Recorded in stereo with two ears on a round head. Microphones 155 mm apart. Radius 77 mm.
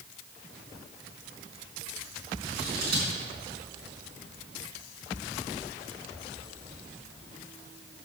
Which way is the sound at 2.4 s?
60° right (ahead or behind).